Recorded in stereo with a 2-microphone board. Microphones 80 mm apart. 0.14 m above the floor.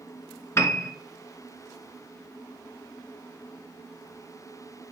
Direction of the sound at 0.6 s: 35° left (ahead or behind).